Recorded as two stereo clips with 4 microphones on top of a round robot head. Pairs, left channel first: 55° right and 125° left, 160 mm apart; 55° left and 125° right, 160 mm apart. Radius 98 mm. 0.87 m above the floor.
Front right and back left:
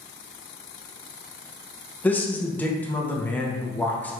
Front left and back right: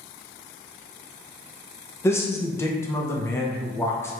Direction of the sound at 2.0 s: 10° left.